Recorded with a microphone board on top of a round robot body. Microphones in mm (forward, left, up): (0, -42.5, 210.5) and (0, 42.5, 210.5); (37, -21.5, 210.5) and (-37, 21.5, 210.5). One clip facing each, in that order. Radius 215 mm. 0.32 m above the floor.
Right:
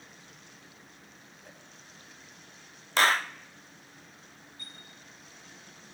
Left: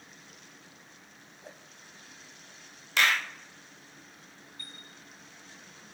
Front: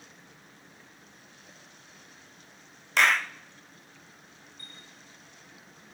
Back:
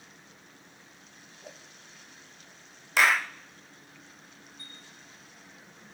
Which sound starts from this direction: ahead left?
A chime, at 4.6 s.